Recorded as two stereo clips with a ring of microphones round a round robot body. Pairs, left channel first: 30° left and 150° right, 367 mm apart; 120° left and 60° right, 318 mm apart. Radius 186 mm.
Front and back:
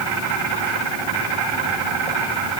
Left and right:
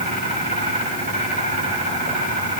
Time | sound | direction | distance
0.0 | an insect | 135° right | 9.5 m